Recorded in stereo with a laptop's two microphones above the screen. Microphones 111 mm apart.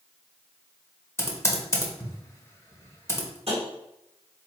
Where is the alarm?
I don't hear an alarm.